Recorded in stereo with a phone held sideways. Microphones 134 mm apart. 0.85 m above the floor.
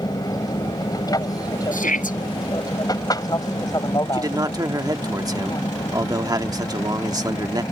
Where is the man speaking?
30° right (ahead or behind).